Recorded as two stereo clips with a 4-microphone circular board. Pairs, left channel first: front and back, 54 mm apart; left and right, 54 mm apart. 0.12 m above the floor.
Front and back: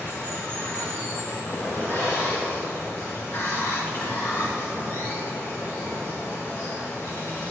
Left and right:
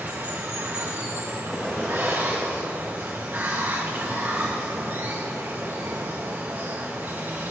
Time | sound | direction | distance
0.0 | running water | 40° right | 3 m
1.5 | an explosion | 10° left | 3.5 m